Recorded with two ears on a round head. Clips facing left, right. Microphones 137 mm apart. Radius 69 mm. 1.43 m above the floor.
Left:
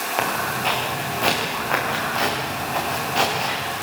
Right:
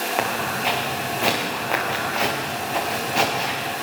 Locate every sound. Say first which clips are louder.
0.2 s footsteps: left 2 dB; 5° right (ahead or behind), 6.5 m